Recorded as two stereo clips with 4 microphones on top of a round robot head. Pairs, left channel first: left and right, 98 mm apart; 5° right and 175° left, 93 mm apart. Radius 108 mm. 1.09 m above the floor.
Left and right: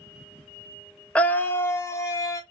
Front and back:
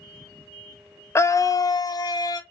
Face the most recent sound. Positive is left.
turn(degrees=35)